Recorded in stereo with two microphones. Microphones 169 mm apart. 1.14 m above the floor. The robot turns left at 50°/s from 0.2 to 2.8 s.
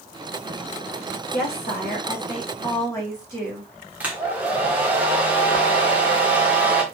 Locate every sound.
1.3 s a woman speaking: 90° left, 2.5 m; by 3.7 s 20° left, 2.5 m
4.0 s a hair dryer: 10° right (ahead or behind), 1.1 m